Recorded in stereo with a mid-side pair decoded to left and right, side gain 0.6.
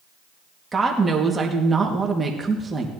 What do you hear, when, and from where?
0.7 s a woman speaking: 20° right, 2.0 m